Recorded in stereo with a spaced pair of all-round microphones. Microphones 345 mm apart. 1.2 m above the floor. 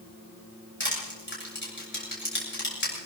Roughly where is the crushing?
Left.